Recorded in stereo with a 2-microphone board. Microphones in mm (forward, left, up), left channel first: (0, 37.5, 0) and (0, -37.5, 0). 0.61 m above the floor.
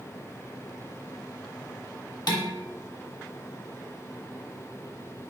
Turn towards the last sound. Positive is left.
turn(degrees=60)  # may be behind; listen again after turning